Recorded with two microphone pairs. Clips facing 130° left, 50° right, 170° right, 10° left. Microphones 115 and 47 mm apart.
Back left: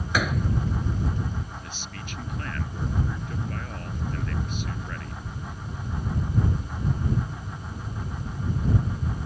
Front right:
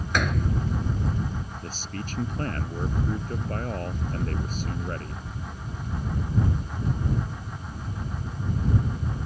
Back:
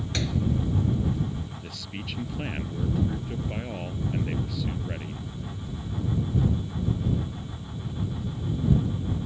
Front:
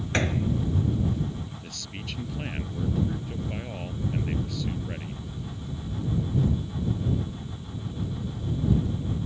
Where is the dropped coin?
No dropped coin in this recording.